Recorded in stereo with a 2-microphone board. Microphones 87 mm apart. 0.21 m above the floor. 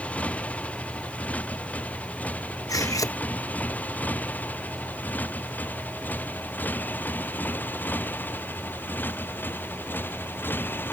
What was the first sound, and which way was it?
A motorcycle, 15° left (ahead or behind).